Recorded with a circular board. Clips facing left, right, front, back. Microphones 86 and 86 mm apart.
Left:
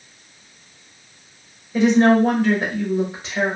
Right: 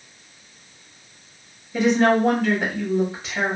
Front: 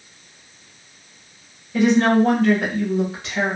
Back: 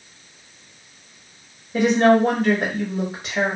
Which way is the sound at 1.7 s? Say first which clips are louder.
Left 3 dB, even; 175° right.